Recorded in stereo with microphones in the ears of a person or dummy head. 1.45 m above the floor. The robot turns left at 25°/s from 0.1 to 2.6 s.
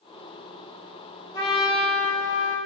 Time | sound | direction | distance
1.3 | a trumpet | 25° left | 4.5 m